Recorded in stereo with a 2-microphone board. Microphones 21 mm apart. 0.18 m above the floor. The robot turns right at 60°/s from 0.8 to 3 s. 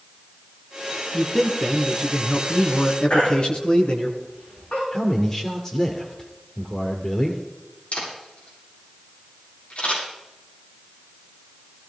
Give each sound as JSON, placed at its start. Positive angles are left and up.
{"t": 1.1, "sound": "a man speaking", "azimuth_deg": -5, "distance_m": 2.5}
{"t": 3.1, "sound": "a baby crying", "side_deg": 80, "distance_m": 9.0}
{"t": 4.9, "sound": "a man speaking", "side_deg": 35, "distance_m": 2.5}
{"t": 7.9, "sound": "a camera shutter", "side_deg": 80, "distance_m": 8.0}